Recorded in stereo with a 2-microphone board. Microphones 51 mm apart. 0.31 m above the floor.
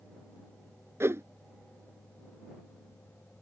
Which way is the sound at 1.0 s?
55° right (ahead or behind).